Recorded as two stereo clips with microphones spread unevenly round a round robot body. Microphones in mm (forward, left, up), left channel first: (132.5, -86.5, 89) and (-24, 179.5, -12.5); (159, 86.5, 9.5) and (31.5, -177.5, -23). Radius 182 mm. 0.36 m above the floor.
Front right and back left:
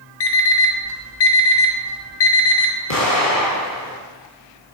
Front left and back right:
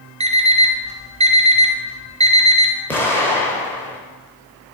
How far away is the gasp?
I don't hear a gasp.